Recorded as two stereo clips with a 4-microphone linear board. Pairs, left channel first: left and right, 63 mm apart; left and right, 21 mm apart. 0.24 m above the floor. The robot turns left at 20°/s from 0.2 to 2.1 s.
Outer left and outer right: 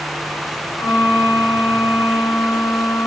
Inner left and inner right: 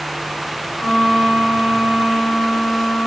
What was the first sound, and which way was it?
A violin, 60° left (ahead or behind).